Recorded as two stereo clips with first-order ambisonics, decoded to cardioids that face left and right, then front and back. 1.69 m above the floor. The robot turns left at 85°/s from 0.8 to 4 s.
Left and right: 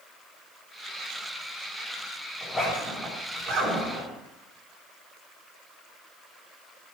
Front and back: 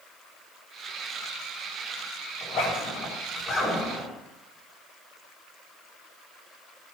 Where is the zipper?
30° left, 4 m; by 4.1 s 105° right, 4 m.